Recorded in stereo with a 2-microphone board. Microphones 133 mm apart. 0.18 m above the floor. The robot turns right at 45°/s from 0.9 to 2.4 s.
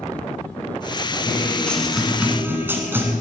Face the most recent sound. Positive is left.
turn(degrees=-155)